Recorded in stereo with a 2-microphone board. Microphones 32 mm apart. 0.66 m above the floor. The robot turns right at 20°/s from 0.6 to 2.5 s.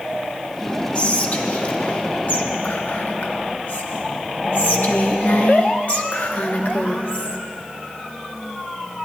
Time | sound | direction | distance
0.9 | whispering | 55° left | 0.7 m